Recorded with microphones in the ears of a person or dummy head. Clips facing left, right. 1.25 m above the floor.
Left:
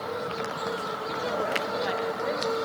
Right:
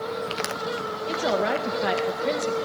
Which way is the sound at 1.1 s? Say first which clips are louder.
Right 6 dB; 70° right (ahead or behind).